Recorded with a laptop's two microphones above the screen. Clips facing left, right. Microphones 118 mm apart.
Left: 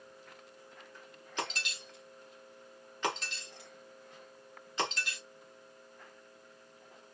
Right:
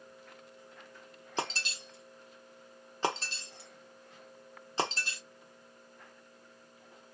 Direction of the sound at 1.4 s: 35° right (ahead or behind).